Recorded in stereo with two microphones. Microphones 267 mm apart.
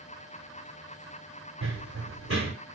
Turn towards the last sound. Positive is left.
turn(degrees=-60)  # may be behind; listen again after turning